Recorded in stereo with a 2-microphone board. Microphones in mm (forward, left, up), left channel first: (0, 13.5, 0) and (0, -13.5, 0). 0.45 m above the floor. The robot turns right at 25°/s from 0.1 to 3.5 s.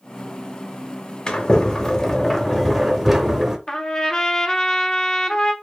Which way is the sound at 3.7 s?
25° left (ahead or behind).